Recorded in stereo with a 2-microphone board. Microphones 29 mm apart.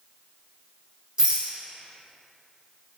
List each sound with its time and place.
1.2 s a rattle: 20° right (ahead or behind), 0.8 m